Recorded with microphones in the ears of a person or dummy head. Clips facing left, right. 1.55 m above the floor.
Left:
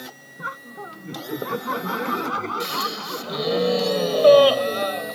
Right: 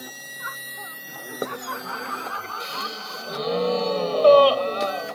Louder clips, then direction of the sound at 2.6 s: Left 5 dB; 15° left (ahead or behind).